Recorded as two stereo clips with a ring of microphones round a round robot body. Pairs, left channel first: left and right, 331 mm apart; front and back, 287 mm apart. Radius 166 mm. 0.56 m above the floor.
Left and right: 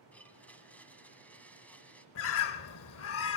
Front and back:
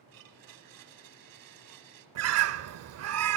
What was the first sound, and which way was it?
A blender, 175° left.